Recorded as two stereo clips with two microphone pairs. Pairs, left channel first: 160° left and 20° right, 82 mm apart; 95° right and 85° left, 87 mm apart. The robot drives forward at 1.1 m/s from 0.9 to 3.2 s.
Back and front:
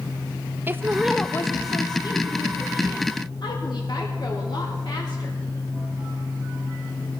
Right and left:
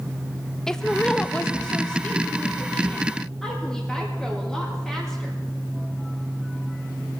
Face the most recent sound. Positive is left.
turn(degrees=180)